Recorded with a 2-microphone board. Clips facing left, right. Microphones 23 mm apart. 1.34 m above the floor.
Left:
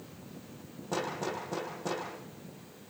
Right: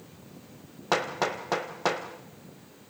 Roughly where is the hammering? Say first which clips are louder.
Right 7 dB; right.